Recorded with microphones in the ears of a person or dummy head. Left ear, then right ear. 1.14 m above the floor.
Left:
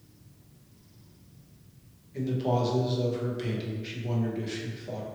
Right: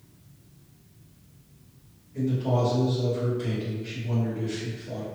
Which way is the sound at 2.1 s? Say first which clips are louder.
Right 1 dB; 45° left (ahead or behind).